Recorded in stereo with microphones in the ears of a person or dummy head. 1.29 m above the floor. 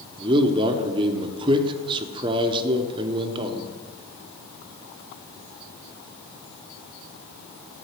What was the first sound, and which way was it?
A man speaking, 30° right (ahead or behind).